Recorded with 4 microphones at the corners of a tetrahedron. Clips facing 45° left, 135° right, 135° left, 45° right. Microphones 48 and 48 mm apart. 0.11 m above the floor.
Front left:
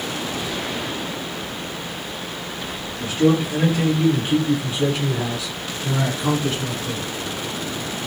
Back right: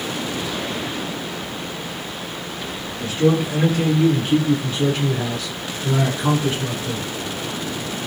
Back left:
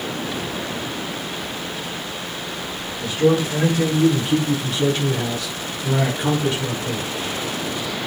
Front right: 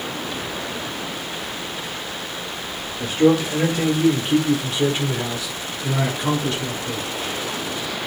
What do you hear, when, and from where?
3.0 s a man speaking: 10° right, 2 m; by 7.1 s 165° left, 1.7 m